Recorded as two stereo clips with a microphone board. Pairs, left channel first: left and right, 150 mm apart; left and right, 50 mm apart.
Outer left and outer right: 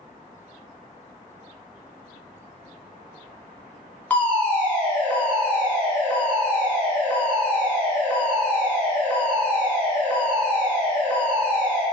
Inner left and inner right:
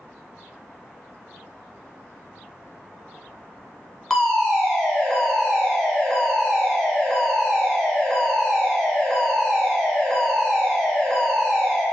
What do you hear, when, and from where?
4.1 s a fire alarm: 10° left (ahead or behind), 0.6 m